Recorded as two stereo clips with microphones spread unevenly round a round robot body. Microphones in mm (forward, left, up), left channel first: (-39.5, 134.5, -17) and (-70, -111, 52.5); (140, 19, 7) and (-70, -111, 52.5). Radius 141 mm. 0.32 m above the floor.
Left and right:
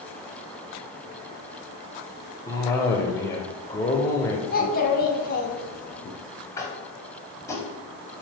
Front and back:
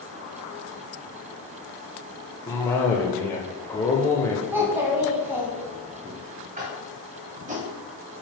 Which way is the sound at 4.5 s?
125° left.